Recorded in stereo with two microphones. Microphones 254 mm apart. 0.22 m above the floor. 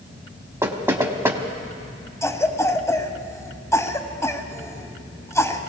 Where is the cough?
10° left (ahead or behind), 1.1 m.